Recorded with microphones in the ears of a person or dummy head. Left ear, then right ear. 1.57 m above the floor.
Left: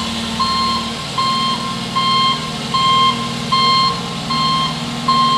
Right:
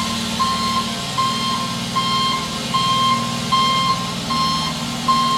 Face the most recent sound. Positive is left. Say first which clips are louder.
# left 1 dB
turn(degrees=5)  # may be behind; listen again after turning